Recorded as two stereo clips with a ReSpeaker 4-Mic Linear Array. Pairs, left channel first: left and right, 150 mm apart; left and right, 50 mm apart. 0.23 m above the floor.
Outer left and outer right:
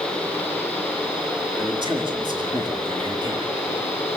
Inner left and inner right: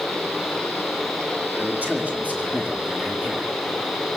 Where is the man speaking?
30° right (ahead or behind), 4 m.